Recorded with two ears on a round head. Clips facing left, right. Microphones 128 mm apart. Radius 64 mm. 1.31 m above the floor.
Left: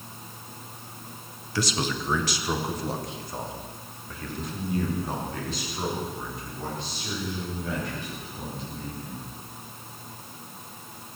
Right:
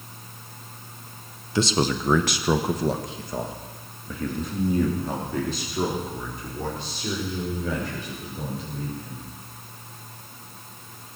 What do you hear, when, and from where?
1.6 s a man speaking: 20° right (ahead or behind), 1.1 m; by 9.3 s 75° right (ahead or behind), 7.5 m